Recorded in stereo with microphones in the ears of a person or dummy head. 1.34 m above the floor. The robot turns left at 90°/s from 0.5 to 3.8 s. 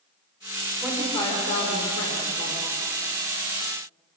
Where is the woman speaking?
175° right, 5 m; by 2.6 s 25° left, 5 m.